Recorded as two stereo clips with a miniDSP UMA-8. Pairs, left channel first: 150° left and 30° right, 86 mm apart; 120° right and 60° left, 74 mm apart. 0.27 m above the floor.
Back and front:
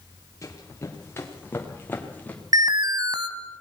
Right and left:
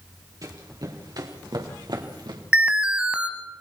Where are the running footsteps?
95° left, 3.5 m; by 2.4 s 80° left, 3.5 m.